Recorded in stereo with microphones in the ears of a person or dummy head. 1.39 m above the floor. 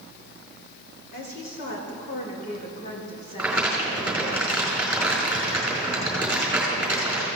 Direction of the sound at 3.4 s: 5° right (ahead or behind).